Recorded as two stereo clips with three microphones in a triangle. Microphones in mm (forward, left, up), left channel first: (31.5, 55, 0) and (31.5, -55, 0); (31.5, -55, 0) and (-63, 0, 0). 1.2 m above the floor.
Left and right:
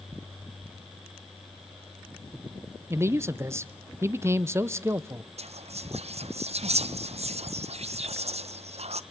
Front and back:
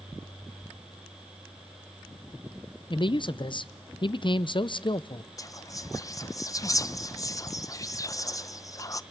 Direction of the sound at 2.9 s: 30° right.